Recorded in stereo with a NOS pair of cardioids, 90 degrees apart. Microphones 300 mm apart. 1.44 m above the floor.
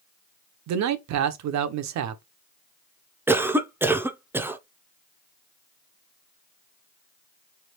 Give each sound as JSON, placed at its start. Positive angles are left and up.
{"t": 0.7, "sound": "a man speaking", "azimuth_deg": -70, "distance_m": 0.7}
{"t": 3.3, "sound": "a cough", "azimuth_deg": -5, "distance_m": 0.6}